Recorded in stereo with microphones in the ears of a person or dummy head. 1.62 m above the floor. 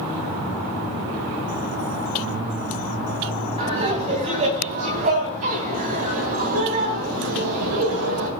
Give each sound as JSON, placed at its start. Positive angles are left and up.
{"t": 3.6, "sound": "laughter", "side_deg": -25, "distance_m": 4.0}